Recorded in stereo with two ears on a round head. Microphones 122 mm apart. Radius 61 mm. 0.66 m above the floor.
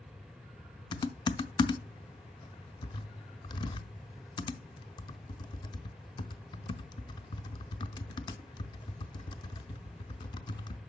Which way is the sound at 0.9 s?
35° left (ahead or behind).